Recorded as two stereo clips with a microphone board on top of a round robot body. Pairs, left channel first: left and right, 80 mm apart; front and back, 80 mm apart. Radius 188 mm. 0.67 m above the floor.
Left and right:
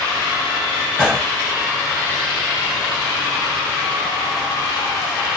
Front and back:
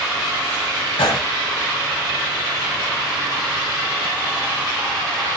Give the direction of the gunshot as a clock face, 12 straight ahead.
12 o'clock.